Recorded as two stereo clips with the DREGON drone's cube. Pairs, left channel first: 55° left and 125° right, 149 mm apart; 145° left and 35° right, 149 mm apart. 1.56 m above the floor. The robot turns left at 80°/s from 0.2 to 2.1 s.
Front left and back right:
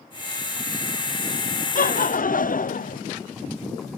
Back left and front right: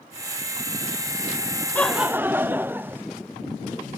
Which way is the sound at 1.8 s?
70° left.